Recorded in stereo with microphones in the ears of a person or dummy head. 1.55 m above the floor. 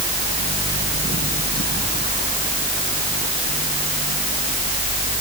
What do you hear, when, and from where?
0.0 s a fan: 40° right (ahead or behind)